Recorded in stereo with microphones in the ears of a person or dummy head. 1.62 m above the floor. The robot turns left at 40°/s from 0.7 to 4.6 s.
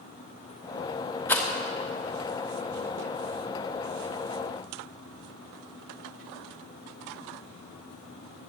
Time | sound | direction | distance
1.3 | a rattle | 10° left (ahead or behind) | 1.1 m